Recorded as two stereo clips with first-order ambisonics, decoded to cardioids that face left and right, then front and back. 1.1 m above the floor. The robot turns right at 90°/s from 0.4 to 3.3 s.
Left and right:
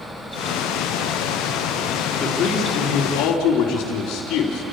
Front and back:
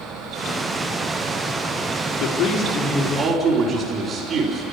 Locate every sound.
2.2 s a man speaking: 25° left, 3.5 m; by 4.6 s 125° left, 3.5 m